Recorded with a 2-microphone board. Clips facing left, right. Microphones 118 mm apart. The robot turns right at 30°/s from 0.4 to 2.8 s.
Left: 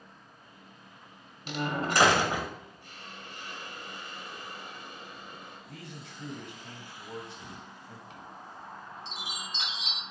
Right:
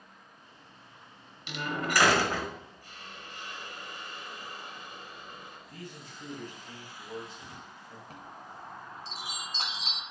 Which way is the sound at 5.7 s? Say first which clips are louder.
Even; 75° left (ahead or behind).